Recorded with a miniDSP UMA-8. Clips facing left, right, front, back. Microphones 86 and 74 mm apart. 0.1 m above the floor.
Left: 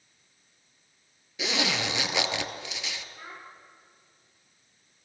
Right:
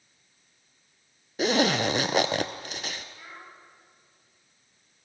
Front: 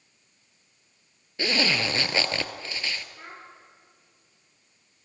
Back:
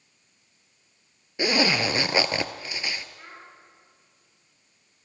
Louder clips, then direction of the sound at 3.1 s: Left 2 dB, front 2 dB; 20° left.